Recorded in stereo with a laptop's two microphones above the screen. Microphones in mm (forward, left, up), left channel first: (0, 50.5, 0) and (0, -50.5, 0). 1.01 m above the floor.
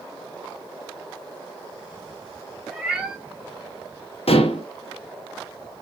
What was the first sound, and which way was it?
A cat meowing, 5° right (ahead or behind).